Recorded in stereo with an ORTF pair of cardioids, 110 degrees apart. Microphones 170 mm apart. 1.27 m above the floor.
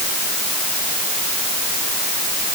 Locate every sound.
Only background noise.